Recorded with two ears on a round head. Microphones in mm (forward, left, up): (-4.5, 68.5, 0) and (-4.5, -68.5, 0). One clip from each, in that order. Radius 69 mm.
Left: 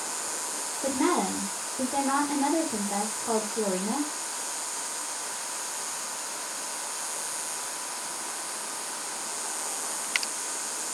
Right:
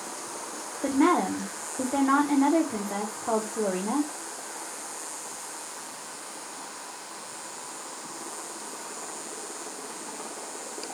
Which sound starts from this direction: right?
A woman speaking, at 0.8 s.